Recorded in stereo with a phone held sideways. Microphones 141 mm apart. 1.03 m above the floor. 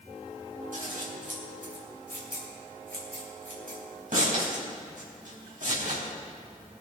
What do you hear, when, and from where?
0.7 s scissors: 70° right (ahead or behind), 4 m